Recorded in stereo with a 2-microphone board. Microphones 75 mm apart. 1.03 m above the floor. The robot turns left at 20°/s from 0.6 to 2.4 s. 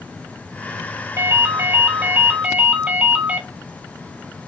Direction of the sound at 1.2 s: 35° right (ahead or behind).